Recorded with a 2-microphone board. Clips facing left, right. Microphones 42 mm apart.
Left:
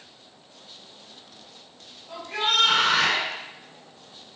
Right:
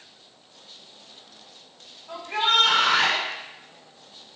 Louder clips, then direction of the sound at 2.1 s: Right 2 dB; 35° right (ahead or behind).